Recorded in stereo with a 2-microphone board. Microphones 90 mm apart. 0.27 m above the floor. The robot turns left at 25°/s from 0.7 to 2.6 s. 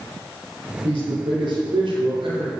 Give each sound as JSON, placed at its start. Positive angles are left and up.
{"t": 0.8, "sound": "a man speaking", "azimuth_deg": -70, "distance_m": 3.0}